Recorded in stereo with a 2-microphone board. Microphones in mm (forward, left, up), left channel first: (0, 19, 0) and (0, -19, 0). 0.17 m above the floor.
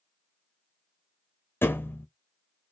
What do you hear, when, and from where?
1.6 s a thud: 80° left, 0.7 m